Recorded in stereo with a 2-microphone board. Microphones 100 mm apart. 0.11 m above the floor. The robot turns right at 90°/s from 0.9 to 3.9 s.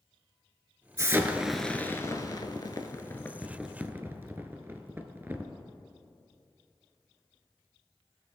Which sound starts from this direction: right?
An explosion, at 1.0 s.